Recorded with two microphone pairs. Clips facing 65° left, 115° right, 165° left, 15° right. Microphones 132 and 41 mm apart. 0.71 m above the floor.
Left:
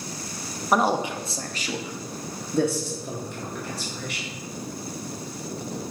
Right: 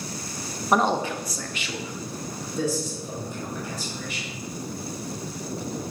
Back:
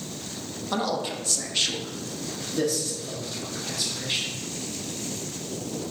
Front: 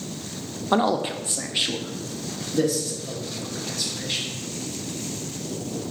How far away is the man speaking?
About 0.6 m.